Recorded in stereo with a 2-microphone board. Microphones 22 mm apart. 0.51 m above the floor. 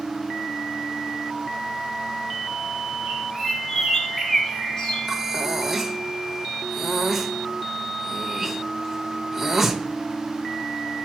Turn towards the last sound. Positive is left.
turn(degrees=-10)  # may be behind; listen again after turning